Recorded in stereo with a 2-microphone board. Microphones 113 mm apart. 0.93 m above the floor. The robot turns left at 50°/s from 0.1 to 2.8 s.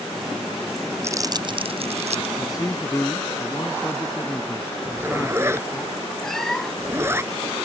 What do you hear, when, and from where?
1.0 s crumpling: 25° right (ahead or behind); by 2.4 s 85° right
2.4 s a man speaking: 40° left (ahead or behind); by 5.8 s 20° left (ahead or behind)
4.8 s a zipper: 20° right (ahead or behind)
6.2 s a cat meowing: 5° left (ahead or behind)